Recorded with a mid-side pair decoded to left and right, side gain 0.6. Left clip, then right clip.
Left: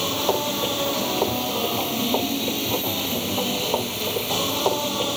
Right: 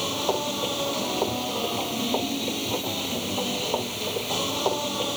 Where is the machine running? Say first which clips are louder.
Left 3 dB; 15° left.